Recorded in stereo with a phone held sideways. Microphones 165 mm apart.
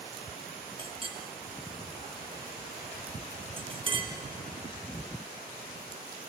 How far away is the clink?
About 0.8 m.